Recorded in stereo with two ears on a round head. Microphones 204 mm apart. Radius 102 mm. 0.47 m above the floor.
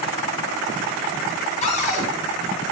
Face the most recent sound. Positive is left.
turn(degrees=30)  # may be behind; listen again after turning